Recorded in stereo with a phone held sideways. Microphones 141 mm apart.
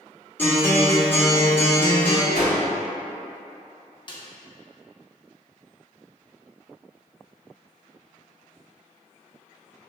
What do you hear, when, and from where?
0.4 s a guitar: 15° left (ahead or behind), 1.1 m
2.3 s a whoosh: 75° left (ahead or behind), 1.3 m
4.1 s a snare drum: 35° left (ahead or behind), 0.6 m